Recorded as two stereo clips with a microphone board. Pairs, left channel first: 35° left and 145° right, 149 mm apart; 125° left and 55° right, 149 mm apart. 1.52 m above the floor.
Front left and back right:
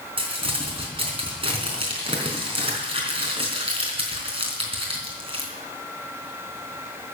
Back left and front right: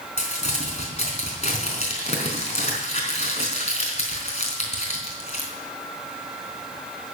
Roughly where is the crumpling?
Behind.